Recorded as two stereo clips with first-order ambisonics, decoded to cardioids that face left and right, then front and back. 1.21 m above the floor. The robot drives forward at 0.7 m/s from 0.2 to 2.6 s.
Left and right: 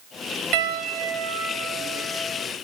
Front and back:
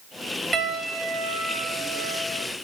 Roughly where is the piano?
Right.